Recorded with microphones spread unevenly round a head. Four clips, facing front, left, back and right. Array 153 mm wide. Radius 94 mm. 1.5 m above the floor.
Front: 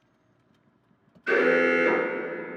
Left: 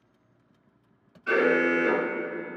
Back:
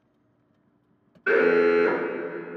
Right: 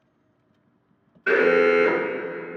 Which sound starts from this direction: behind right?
An alarm, at 1.3 s.